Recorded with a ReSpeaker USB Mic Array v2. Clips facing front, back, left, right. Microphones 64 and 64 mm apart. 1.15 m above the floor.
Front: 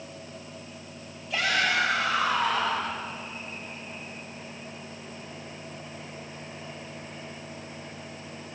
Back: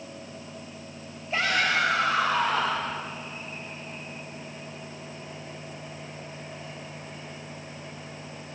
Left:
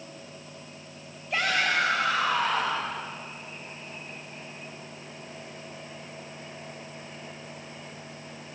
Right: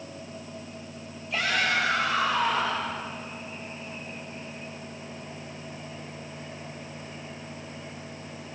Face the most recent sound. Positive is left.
turn(degrees=135)